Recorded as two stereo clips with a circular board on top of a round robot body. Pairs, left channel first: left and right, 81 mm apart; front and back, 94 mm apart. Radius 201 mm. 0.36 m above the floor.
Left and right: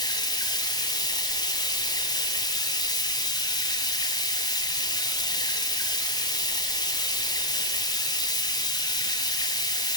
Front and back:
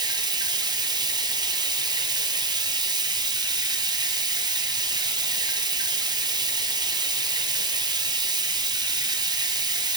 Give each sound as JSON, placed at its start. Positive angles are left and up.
{"t": 0.0, "sound": "running water", "azimuth_deg": 135, "distance_m": 1.7}